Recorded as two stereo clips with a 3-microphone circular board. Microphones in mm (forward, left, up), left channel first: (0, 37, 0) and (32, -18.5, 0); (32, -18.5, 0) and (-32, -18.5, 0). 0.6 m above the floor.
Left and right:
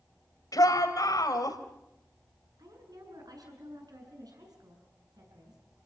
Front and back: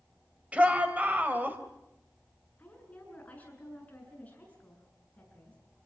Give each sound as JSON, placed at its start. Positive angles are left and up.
{"t": 0.5, "sound": "a shout", "azimuth_deg": 115, "distance_m": 4.0}
{"t": 2.6, "sound": "a woman speaking", "azimuth_deg": -65, "distance_m": 7.5}